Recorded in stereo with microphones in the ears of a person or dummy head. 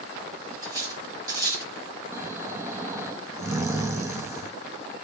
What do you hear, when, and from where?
0.6 s cutlery clinking: 25° right (ahead or behind), 4 m
2.1 s snoring: 20° right (ahead or behind), 1.1 m